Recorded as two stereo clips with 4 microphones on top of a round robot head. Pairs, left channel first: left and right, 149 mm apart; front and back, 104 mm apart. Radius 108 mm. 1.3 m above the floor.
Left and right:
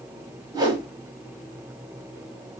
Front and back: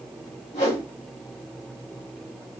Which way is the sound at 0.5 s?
35° right.